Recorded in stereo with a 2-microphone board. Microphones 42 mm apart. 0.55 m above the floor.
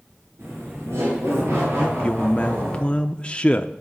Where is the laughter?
70° right (ahead or behind), 8 m; by 2.8 s 80° right, 8 m.